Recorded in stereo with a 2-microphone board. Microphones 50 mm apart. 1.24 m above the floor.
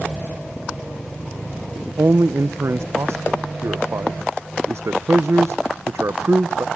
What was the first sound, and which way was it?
A man speaking, 60° right (ahead or behind).